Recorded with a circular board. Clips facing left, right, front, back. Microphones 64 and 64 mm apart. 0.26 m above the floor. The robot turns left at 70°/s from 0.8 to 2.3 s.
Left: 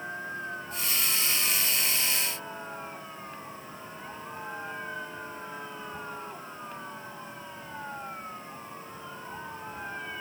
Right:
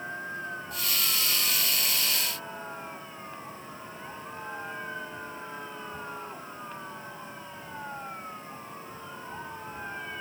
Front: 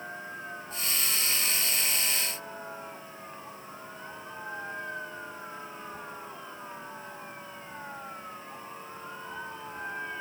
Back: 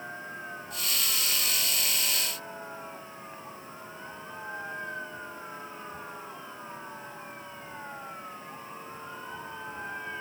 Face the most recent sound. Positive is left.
No sound to turn to.